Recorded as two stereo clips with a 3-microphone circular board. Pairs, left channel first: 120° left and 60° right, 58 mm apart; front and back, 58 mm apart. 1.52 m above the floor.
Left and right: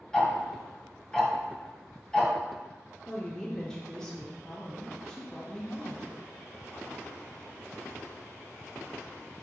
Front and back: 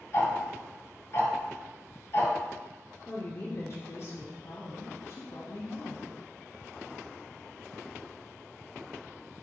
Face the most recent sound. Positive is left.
turn(degrees=40)